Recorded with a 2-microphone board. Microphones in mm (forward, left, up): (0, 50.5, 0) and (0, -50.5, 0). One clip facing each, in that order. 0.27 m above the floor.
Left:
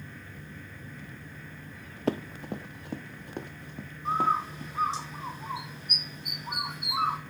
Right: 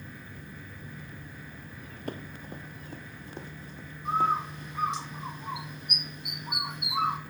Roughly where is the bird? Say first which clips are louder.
Even; left.